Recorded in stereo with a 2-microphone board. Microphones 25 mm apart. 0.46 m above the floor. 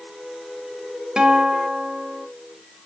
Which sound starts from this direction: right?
A guitar, at 1.2 s.